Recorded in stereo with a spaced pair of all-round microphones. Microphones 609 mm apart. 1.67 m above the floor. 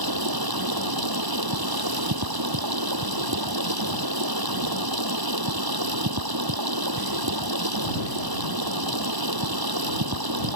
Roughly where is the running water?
Right.